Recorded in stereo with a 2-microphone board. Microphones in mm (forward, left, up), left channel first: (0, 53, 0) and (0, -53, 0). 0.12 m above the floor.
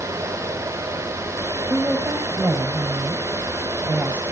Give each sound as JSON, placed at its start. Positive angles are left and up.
{"t": 1.7, "sound": "a woman speaking", "side_deg": -10, "distance_m": 4.5}